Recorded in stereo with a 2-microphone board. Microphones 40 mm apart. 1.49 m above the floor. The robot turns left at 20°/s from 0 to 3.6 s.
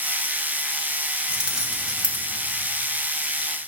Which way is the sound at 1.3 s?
25° right (ahead or behind).